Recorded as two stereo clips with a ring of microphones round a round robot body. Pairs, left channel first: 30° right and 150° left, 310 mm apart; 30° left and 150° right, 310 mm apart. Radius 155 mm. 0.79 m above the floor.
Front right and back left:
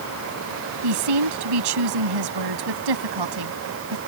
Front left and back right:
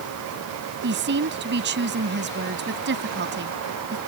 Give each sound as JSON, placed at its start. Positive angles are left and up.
{"t": 0.8, "sound": "a woman speaking", "azimuth_deg": 155}